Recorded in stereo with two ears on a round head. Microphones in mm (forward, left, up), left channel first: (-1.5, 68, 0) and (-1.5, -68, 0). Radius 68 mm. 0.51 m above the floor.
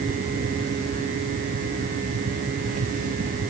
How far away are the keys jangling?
I don't hear keys jangling.